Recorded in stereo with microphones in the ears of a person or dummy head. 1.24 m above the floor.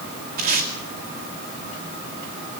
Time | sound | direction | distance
0.4 | tape being pulled | 50° right (ahead or behind) | 2.5 m